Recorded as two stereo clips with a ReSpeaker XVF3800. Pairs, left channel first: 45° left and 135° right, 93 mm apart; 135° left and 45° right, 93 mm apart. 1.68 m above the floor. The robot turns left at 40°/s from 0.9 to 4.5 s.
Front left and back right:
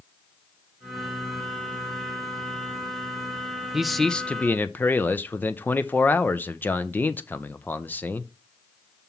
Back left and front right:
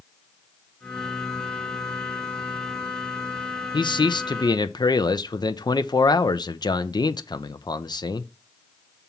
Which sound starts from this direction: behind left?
A man speaking, at 3.7 s.